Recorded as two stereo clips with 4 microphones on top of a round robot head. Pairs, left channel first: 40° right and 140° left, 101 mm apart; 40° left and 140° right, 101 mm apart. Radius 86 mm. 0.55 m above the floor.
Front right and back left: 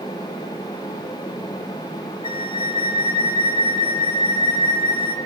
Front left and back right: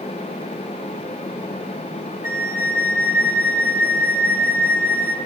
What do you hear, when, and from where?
2.2 s a flute: 75° right, 1.1 m